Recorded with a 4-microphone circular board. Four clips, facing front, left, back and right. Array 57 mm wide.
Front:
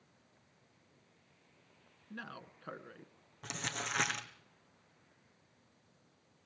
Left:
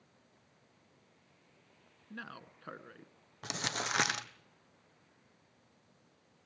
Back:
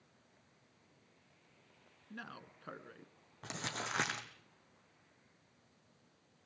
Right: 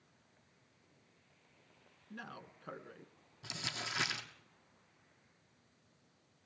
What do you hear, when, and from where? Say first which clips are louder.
2.1 s a man speaking: left 2 dB, front 2 dB; 75° left, 1.1 m
3.4 s crumpling: left 5 dB, front 2 dB; 105° left, 1.4 m